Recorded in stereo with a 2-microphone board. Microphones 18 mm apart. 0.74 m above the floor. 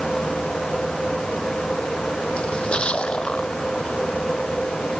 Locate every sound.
2.4 s a splash: 65° left (ahead or behind)